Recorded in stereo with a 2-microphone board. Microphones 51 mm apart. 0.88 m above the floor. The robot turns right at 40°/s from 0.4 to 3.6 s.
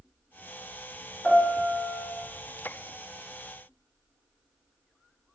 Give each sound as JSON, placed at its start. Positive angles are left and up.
{"t": 1.2, "sound": "a piano", "azimuth_deg": 125, "distance_m": 1.2}